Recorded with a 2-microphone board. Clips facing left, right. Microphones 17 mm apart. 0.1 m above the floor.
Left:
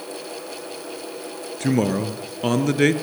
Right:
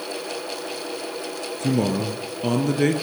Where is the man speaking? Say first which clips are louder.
Left 2 dB; 30° left (ahead or behind), 1.7 m.